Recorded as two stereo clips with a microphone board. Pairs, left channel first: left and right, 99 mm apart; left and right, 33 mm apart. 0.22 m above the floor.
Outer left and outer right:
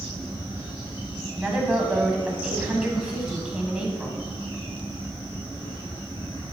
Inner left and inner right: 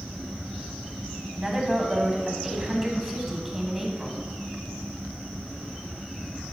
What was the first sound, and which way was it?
A woman speaking, 10° right (ahead or behind).